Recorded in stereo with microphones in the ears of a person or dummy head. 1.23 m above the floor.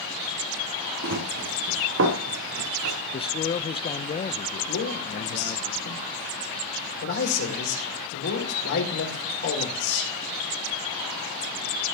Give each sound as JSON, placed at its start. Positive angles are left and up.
{"t": 1.0, "sound": "running footsteps", "side_deg": -65, "distance_m": 3.5}
{"t": 3.1, "sound": "a man speaking", "side_deg": 30, "distance_m": 0.6}
{"t": 4.7, "sound": "a man speaking", "side_deg": 75, "distance_m": 4.0}